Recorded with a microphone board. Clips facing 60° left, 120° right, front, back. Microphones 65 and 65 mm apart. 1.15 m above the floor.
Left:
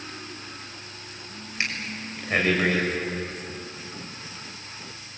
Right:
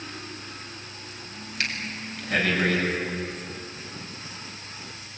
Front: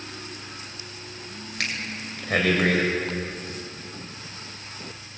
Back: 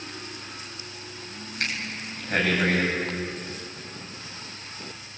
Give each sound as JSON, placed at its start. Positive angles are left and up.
{"t": 1.6, "sound": "breathing", "azimuth_deg": -10, "distance_m": 6.0}